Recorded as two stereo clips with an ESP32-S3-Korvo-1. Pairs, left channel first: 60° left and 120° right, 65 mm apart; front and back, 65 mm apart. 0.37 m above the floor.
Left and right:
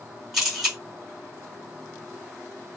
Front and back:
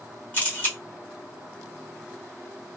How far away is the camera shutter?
About 1.5 m.